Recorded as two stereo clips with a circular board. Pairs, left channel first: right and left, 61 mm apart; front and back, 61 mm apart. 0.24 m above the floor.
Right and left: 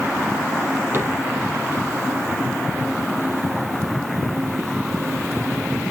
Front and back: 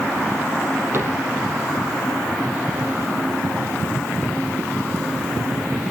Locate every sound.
0.9 s a cupboard door: 135° left, 4.5 m